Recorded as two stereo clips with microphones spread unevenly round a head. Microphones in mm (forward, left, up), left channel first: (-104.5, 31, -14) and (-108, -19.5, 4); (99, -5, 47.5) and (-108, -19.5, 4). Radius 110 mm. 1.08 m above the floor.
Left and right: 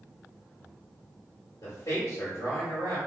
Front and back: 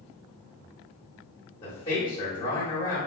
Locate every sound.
1.6 s a man speaking: 75° left, 1.2 m